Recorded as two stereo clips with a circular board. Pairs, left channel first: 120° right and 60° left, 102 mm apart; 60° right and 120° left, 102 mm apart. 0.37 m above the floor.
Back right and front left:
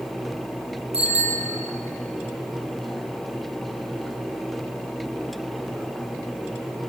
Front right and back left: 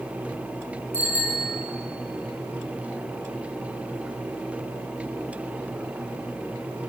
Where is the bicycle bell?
50° left, 6.5 m.